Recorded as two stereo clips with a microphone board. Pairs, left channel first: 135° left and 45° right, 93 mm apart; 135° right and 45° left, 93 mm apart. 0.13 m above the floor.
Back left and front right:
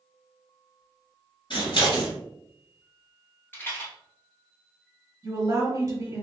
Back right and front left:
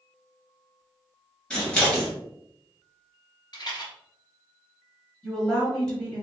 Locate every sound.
1.5 s scissors: 145° left, 1.8 m
3.5 s a rattle: 160° right, 1.5 m
5.2 s a woman speaking: 55° right, 1.4 m